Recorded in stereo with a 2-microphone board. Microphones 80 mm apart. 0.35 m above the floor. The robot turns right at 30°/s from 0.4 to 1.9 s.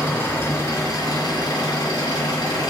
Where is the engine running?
30° left, 4 m; by 2.7 s 75° left, 4 m.